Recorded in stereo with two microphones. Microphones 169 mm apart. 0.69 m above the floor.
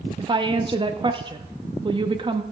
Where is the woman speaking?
30° right (ahead or behind), 0.8 m.